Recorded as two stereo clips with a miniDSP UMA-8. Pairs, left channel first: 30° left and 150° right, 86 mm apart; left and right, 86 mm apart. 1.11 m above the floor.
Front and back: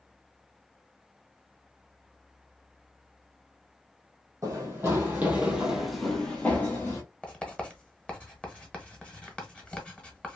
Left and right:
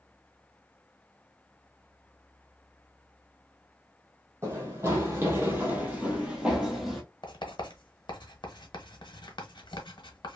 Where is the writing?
110° left, 0.9 m.